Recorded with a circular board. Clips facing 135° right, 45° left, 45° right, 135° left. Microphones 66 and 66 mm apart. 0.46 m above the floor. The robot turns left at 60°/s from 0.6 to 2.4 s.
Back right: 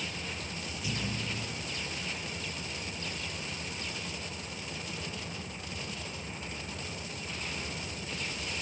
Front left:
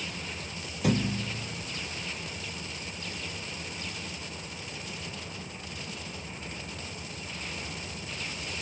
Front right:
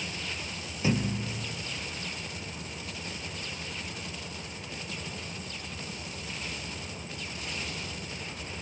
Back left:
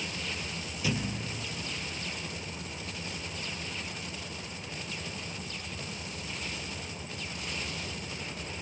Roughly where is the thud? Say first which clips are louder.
Front left 9 dB, front right 5 dB; ahead.